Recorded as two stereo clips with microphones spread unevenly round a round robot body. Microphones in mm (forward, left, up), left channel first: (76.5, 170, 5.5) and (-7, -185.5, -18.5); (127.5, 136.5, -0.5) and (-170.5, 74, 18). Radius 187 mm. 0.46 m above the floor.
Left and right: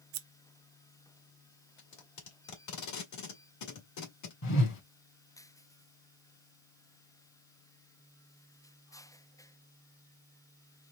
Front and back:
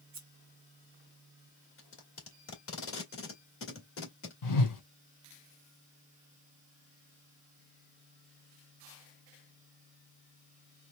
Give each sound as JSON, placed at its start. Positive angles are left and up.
{"t": 0.1, "sound": "scissors", "azimuth_deg": -100, "distance_m": 0.6}
{"t": 1.8, "sound": "tape being pulled", "azimuth_deg": 45, "distance_m": 2.0}
{"t": 4.4, "sound": "a whoosh", "azimuth_deg": 25, "distance_m": 2.0}